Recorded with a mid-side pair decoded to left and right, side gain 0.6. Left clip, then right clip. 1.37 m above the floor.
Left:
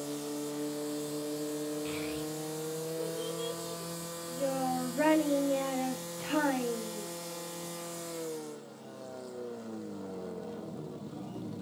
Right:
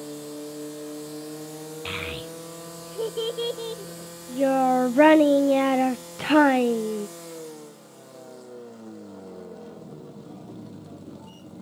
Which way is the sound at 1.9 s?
60° right.